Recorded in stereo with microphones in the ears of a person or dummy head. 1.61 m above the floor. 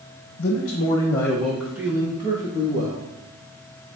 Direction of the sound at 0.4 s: 55° left (ahead or behind).